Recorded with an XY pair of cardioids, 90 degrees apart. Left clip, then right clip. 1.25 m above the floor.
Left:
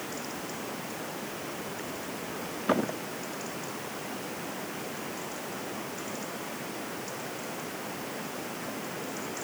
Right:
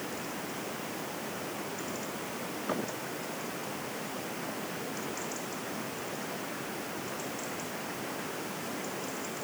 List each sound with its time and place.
Only background noise.